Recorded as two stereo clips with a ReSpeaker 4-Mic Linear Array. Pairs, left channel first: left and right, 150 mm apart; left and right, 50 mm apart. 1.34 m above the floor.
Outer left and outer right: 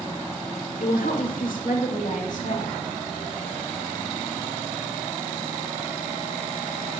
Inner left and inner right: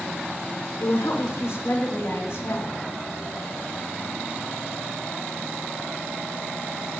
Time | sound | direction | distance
0.8 | a woman speaking | 85° left | 1.9 m